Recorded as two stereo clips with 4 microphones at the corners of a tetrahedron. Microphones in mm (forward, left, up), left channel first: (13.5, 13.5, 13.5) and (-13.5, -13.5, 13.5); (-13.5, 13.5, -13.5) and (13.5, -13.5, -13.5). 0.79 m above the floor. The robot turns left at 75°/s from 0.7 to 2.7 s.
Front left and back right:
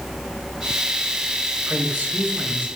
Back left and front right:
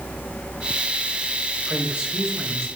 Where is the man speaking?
80° right, 3.5 m; by 2.7 s 155° right, 3.5 m.